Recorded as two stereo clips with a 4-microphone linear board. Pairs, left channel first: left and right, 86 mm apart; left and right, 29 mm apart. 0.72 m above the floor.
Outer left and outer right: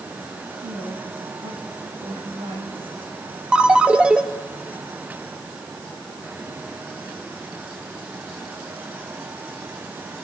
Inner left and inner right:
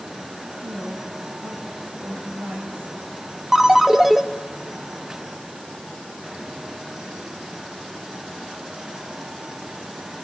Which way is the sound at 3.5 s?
10° right (ahead or behind).